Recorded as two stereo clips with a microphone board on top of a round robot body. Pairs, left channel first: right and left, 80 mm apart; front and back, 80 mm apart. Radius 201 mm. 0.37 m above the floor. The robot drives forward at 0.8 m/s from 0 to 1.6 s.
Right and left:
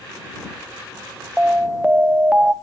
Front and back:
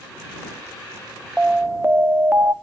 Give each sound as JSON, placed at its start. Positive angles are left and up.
{"t": 1.4, "sound": "an alarm", "azimuth_deg": 130, "distance_m": 1.1}